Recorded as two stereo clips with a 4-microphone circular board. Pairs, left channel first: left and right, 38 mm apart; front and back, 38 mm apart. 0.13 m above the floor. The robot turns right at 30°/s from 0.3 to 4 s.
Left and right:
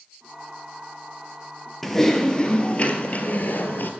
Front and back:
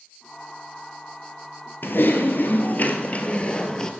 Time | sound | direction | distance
1.8 | typing on a keyboard | 5° left | 0.9 m